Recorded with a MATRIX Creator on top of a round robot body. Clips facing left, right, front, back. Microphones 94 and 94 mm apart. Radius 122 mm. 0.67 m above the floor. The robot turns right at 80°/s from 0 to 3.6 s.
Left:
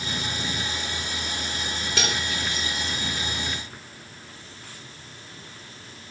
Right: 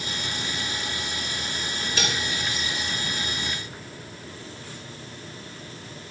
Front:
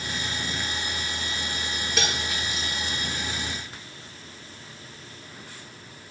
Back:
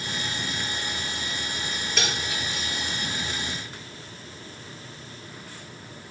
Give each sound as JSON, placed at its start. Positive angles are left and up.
{"t": 2.0, "sound": "cutlery clinking", "azimuth_deg": 85, "distance_m": 7.5}